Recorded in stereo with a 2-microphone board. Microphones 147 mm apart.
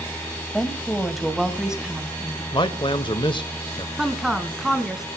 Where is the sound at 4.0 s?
Centre (ahead or behind), 2.5 m.